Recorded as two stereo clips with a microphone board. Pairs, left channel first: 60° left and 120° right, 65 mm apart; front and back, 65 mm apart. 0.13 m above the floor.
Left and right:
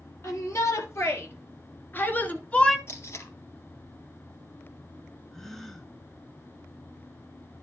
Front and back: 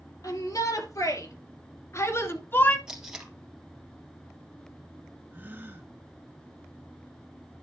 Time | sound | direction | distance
0.2 | a shout | 20° left | 4 m
2.9 | tape being pulled | 100° left | 2.5 m
5.3 | a gasp | 140° left | 1.5 m